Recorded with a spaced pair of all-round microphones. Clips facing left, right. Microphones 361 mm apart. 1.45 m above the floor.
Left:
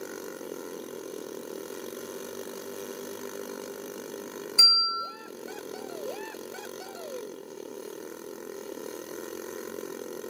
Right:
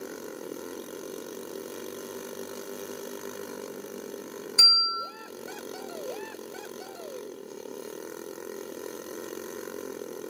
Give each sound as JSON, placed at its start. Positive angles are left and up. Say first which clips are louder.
{"t": 4.6, "sound": "a bell", "louder": "right 1 dB", "side_deg": -30, "distance_m": 0.8}